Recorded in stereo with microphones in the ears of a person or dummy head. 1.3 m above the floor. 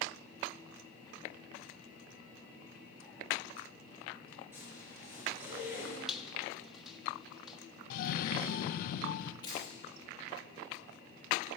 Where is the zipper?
15° right (ahead or behind), 4 m.